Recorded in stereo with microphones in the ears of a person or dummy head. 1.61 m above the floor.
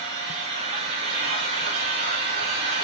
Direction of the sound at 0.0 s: 40° right (ahead or behind).